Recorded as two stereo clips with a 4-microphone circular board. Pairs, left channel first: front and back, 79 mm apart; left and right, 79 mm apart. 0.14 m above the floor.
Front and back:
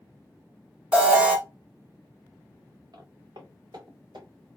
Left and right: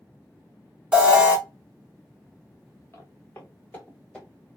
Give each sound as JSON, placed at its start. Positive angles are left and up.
{"t": 0.9, "sound": "an alarm", "azimuth_deg": -145, "distance_m": 0.8}
{"t": 2.9, "sound": "footsteps", "azimuth_deg": 150, "distance_m": 1.2}